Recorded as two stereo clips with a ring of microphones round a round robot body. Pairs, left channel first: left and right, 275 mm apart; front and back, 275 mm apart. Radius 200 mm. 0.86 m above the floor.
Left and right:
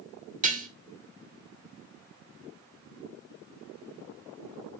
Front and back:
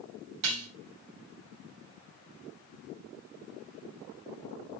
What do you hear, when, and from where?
0.4 s dishes clattering: 150° right, 2 m